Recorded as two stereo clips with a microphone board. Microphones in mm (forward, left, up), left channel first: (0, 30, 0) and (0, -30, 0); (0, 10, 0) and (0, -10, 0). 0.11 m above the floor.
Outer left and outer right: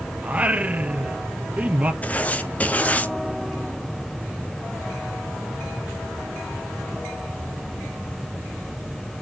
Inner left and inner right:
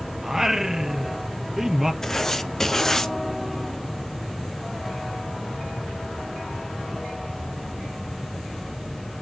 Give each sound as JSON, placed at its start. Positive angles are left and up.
{"t": 0.2, "sound": "singing", "side_deg": -25, "distance_m": 0.7}
{"t": 2.0, "sound": "writing", "side_deg": 25, "distance_m": 0.8}